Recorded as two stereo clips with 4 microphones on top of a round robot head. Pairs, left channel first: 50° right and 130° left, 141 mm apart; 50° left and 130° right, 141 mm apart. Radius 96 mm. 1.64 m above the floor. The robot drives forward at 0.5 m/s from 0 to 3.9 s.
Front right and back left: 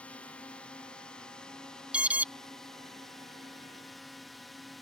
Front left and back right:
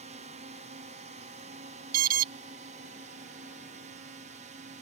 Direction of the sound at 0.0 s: 125° right.